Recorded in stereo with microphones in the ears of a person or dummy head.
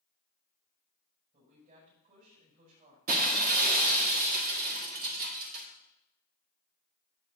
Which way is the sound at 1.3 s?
45° right (ahead or behind).